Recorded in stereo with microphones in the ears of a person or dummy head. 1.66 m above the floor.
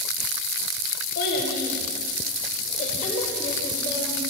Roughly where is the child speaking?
Left.